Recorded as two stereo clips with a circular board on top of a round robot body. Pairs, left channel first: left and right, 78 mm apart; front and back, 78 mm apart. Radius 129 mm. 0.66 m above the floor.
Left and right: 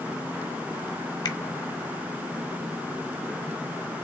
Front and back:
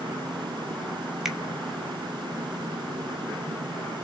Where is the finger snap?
95° left, 2.5 m.